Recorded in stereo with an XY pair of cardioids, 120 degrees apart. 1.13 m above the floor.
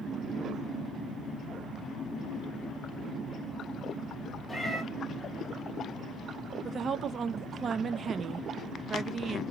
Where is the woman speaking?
40° right, 0.6 m.